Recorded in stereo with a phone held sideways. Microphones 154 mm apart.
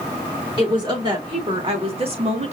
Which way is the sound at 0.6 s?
30° right (ahead or behind).